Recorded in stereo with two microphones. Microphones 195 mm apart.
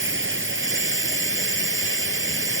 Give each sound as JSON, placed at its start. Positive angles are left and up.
{"t": 0.0, "sound": "running water", "side_deg": -85}